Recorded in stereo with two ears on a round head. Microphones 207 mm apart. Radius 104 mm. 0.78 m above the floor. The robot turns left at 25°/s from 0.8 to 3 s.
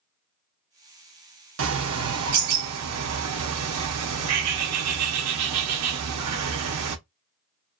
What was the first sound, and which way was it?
A bird, 60° right.